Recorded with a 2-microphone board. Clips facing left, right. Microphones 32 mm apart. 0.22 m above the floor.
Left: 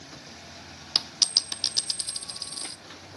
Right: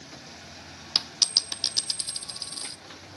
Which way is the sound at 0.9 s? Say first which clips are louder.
Even; centre (ahead or behind).